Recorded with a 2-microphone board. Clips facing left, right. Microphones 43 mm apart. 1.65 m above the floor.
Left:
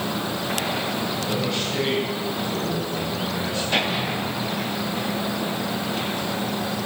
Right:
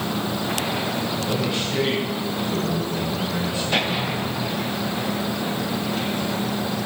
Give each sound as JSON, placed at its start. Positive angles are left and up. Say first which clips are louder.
{"t": 1.2, "sound": "a man speaking", "louder": "right 1 dB", "side_deg": -20, "distance_m": 7.0}